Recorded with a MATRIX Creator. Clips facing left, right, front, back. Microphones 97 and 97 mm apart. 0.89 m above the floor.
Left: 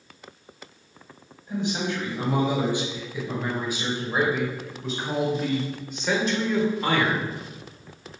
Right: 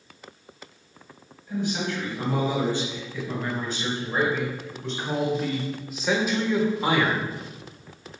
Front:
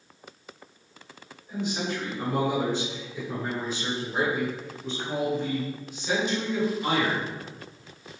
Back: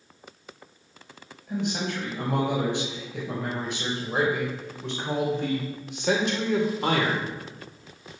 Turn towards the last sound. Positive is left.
turn(degrees=-160)